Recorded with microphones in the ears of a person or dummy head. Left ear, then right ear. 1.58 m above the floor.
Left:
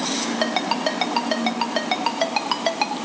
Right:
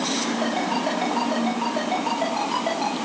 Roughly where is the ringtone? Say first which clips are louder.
Left 4 dB; left.